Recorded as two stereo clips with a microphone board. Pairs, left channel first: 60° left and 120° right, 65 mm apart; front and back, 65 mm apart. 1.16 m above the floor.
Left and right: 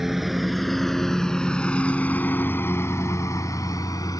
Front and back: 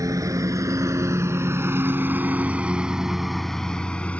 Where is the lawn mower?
155° left; by 4.2 s 65° left.